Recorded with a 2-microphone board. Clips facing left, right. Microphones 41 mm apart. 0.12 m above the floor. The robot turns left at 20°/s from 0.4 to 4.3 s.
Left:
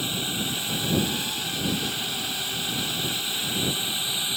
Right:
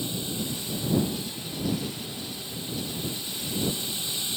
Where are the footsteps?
No footsteps in this recording.